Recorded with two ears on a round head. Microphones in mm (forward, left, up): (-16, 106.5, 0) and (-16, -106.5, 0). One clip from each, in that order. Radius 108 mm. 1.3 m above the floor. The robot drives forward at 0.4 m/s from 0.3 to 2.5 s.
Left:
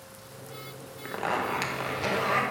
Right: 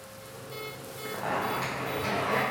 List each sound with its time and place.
1.1 s a zipper: 75° left (ahead or behind), 1.9 m; by 2.4 s 70° left (ahead or behind), 2.0 m